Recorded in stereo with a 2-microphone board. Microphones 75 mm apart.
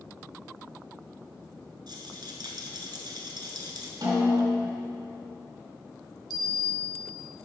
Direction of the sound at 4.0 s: 60° right (ahead or behind).